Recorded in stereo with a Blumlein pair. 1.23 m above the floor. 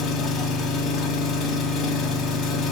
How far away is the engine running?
About 0.7 m.